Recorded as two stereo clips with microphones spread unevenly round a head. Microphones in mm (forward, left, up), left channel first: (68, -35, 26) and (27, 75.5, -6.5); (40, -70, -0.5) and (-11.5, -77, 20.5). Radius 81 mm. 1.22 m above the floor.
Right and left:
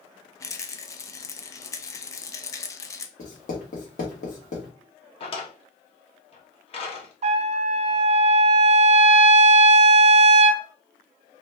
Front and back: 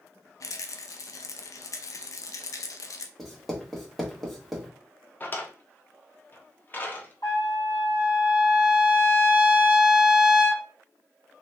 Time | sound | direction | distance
0.4 | a rattle | 15° right | 0.6 m
3.2 | writing | 85° right | 1.6 m
5.2 | a drawer | 55° right | 1.1 m
7.2 | a trumpet | 80° left | 0.5 m